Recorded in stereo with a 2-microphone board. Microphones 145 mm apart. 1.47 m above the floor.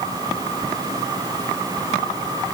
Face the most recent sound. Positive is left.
No sound to turn to.